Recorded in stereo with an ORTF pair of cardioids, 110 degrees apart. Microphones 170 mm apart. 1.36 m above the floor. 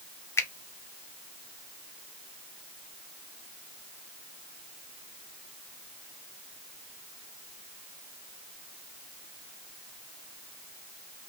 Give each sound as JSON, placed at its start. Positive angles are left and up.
{"t": 0.4, "sound": "a finger snap", "azimuth_deg": 15, "distance_m": 0.5}